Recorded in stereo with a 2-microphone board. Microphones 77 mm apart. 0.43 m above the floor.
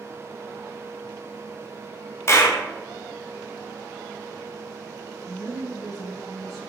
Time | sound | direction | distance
2.3 | a clap | 35° left (ahead or behind) | 0.7 m
5.3 | a woman speaking | 5° left (ahead or behind) | 1.0 m